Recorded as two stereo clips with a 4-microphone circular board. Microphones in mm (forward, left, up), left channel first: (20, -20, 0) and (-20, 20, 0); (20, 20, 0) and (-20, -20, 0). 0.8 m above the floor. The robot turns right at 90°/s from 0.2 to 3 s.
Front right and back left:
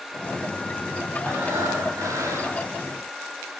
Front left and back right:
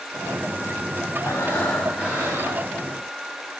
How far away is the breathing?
About 4.5 m.